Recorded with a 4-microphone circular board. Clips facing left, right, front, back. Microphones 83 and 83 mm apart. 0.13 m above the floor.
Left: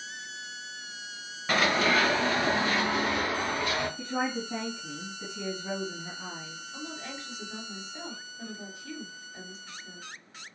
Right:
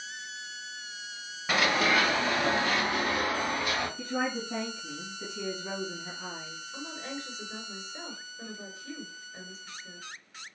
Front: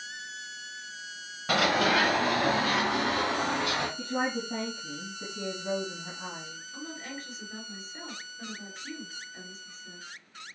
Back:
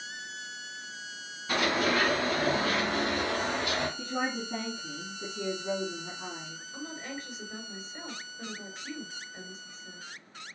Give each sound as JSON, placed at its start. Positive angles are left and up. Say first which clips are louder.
{"t": 1.5, "sound": "running footsteps", "louder": "left 1 dB, front 3 dB", "azimuth_deg": -5, "distance_m": 1.3}
{"t": 4.0, "sound": "a woman speaking", "louder": "left 1 dB, front 2 dB", "azimuth_deg": -10, "distance_m": 2.5}
{"t": 6.7, "sound": "a woman speaking", "louder": "right 1 dB, back 1 dB", "azimuth_deg": -100, "distance_m": 1.8}